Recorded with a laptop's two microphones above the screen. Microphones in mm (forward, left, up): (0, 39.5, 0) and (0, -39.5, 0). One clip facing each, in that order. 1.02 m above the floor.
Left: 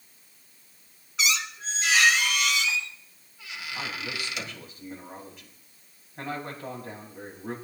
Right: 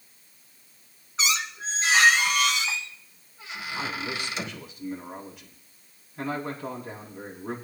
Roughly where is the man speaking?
Left.